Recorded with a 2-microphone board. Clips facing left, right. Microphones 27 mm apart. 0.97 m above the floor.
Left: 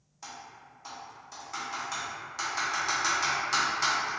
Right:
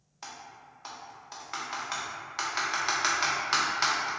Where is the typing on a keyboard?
30° right (ahead or behind), 0.6 m.